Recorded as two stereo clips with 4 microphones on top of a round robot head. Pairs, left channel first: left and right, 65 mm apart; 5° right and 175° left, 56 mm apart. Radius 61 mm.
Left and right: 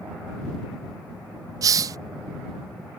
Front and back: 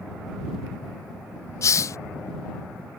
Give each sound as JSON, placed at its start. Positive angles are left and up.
{"t": 1.6, "sound": "a hiss", "azimuth_deg": -50}